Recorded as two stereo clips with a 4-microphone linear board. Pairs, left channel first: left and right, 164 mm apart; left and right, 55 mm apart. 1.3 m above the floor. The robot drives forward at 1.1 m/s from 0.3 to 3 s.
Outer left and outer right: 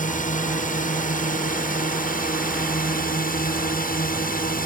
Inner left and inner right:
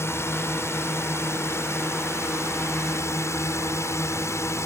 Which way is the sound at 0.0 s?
50° left (ahead or behind).